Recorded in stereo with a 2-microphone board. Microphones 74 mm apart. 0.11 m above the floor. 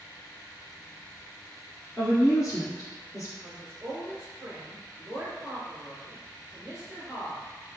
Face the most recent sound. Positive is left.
turn(degrees=-25)  # may be behind; listen again after turning